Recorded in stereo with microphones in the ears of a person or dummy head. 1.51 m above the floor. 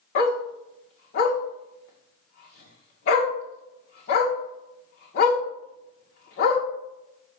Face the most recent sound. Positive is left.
turn(degrees=45)  # may be behind; listen again after turning